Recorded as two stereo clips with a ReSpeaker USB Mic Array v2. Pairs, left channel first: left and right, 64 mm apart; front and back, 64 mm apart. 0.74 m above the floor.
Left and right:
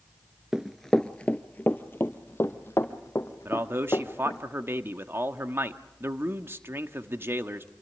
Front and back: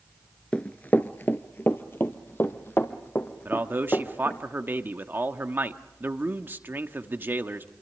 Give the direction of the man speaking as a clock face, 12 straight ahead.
4 o'clock.